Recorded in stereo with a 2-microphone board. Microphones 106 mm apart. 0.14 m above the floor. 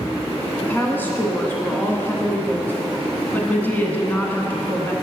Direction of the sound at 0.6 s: 20° left (ahead or behind).